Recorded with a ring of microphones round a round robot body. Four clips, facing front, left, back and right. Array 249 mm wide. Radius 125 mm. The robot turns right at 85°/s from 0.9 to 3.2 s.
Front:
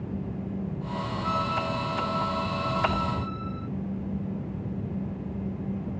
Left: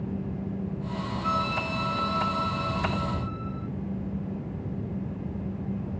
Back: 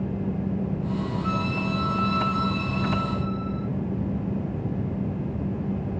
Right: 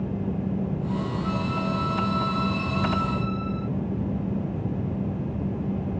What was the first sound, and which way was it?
A violin, 105° left.